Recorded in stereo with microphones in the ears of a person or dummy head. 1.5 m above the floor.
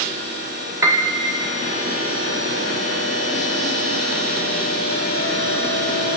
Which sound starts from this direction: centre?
A piano, at 0.8 s.